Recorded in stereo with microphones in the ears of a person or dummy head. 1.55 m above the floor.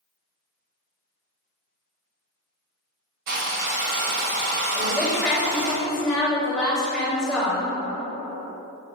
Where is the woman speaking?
5° left (ahead or behind), 2.5 m.